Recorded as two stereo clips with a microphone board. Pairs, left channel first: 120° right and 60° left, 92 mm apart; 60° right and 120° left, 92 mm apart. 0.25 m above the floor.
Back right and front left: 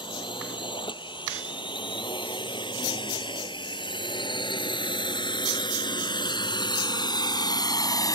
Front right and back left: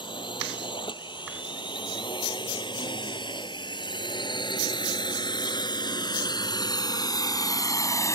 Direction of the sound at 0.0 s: 90° right.